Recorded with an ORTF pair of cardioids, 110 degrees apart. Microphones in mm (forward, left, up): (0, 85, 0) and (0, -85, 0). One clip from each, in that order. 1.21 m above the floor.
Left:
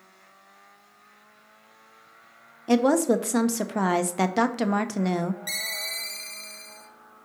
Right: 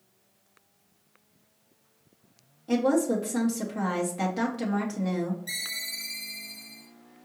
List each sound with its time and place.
2.7 s a woman speaking: 50° left, 0.6 m
5.5 s a ringtone: 60° left, 1.3 m